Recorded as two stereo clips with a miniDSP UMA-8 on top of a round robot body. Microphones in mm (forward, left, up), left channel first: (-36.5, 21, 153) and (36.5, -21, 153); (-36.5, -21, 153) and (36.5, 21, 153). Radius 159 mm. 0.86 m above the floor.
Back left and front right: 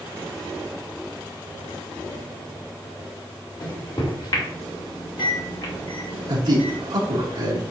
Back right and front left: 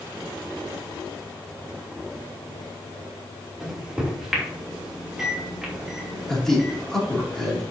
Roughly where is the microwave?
Behind left.